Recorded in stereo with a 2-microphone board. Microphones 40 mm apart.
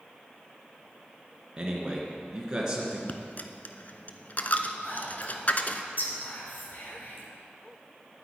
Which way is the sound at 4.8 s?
50° left (ahead or behind).